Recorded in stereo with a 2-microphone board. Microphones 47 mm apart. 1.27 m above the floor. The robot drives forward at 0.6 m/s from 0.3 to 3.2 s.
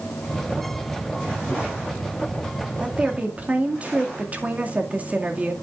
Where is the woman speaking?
25° right (ahead or behind), 2 m; by 5.5 s 30° right (ahead or behind), 2 m.